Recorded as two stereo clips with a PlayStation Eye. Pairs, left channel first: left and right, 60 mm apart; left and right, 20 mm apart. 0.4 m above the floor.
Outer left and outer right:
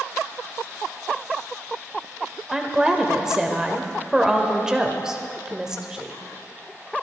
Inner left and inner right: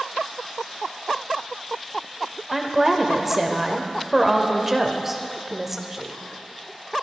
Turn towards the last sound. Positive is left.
turn(degrees=-10)  # may be behind; listen again after turning